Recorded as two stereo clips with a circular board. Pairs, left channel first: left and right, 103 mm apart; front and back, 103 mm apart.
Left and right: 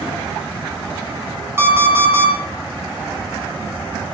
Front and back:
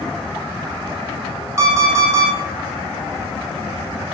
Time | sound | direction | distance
1.6 | an alarm clock | 145° right | 0.7 m